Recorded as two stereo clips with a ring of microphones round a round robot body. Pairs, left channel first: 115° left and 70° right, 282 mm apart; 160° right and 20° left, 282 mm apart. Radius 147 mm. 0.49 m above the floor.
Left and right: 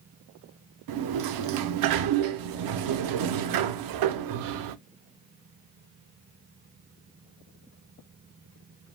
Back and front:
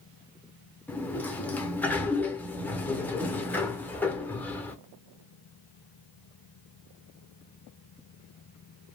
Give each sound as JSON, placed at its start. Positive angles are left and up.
{"t": 0.9, "sound": "a sliding door", "azimuth_deg": -75, "distance_m": 0.5}